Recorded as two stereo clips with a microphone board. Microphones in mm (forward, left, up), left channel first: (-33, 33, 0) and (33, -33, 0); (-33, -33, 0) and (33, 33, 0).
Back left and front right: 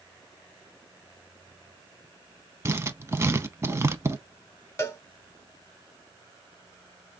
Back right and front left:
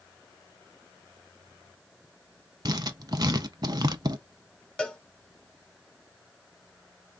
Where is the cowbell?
155° left, 0.8 m.